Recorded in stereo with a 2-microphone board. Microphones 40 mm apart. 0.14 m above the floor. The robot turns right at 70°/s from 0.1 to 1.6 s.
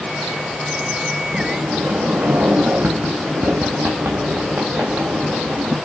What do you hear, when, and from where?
1.3 s a sliding door: 45° right (ahead or behind), 3 m; by 5.8 s 65° right (ahead or behind), 3 m